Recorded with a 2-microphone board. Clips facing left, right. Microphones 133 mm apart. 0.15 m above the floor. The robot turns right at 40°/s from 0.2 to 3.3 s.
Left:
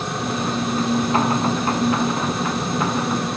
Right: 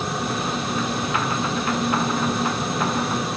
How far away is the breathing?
I don't hear breathing.